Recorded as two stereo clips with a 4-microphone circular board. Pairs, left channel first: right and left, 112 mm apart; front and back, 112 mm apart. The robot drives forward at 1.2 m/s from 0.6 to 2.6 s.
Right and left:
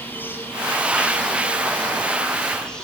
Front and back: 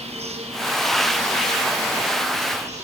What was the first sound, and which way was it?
An insect, 160° right.